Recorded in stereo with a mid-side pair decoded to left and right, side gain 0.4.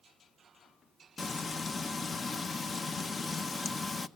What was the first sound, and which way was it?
Frying, 40° left.